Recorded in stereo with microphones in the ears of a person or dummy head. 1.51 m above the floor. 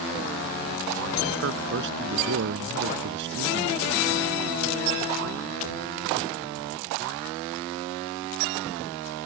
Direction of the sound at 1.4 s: 60° right (ahead or behind).